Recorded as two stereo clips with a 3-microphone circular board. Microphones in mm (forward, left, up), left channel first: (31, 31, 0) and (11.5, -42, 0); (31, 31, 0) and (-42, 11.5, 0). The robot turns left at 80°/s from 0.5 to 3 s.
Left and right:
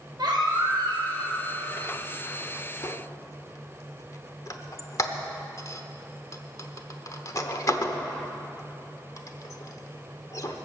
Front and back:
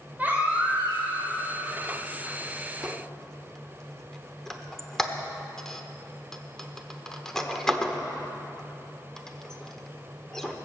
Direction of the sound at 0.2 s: 95° right.